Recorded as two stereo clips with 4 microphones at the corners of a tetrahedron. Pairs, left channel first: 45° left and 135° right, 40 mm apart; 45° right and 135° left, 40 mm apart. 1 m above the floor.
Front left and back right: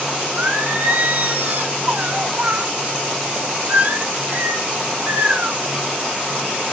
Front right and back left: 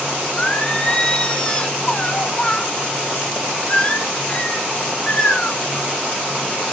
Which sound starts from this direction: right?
Singing, at 0.4 s.